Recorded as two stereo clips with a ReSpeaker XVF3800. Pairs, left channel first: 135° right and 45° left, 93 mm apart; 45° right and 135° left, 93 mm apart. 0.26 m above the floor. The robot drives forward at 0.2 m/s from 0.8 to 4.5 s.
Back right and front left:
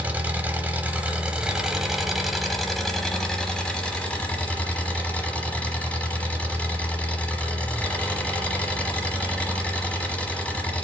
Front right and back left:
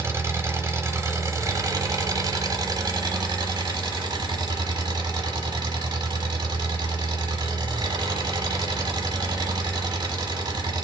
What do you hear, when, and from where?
0.0 s an engine running: 105° left, 0.8 m; by 10.8 s 155° left, 1.1 m